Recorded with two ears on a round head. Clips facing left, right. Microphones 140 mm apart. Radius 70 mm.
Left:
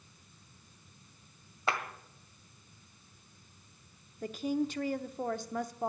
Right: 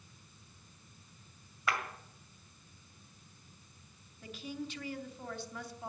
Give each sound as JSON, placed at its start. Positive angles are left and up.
{"t": 1.7, "sound": "a clap", "side_deg": 25, "distance_m": 1.8}
{"t": 4.2, "sound": "a woman speaking", "side_deg": 40, "distance_m": 0.8}